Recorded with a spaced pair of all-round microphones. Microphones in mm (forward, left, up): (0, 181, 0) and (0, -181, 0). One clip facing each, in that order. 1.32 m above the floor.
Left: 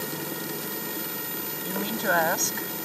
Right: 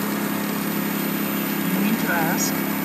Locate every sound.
0.0 s a lawn mower: 85° right
1.6 s a woman speaking: 40° right (ahead or behind)